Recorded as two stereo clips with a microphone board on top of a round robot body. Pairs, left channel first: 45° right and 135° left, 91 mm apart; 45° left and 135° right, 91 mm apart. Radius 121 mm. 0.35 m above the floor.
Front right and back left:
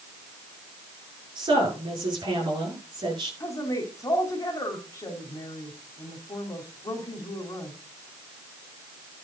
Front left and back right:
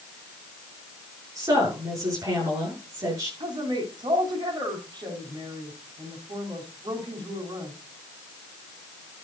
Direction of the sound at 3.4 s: 100° right.